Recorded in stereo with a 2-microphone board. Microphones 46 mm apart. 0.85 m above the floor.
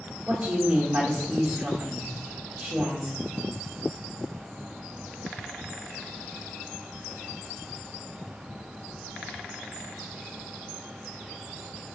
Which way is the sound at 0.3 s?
40° right (ahead or behind).